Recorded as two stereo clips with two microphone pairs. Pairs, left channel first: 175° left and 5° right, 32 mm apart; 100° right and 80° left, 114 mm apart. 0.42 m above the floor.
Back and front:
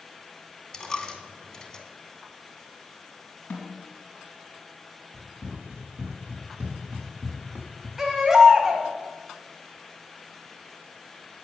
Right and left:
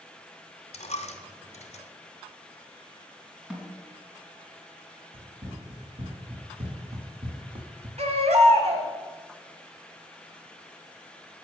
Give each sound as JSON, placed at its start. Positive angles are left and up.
{"t": 0.7, "sound": "a dropped coin", "azimuth_deg": -115, "distance_m": 1.1}
{"t": 3.5, "sound": "a snare drum", "azimuth_deg": 165, "distance_m": 3.0}
{"t": 5.1, "sound": "running footsteps", "azimuth_deg": 50, "distance_m": 3.5}
{"t": 8.0, "sound": "a baby crying", "azimuth_deg": 75, "distance_m": 1.6}